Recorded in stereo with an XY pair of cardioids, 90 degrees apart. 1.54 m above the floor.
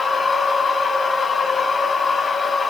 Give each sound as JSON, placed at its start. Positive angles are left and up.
{"t": 0.0, "sound": "a machine running", "azimuth_deg": 45, "distance_m": 2.5}